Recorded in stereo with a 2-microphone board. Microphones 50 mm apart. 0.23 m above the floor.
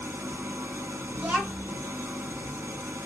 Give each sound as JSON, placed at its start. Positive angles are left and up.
{"t": 0.0, "sound": "an engine running", "side_deg": -65, "distance_m": 1.0}
{"t": 1.2, "sound": "a child speaking", "side_deg": -35, "distance_m": 2.0}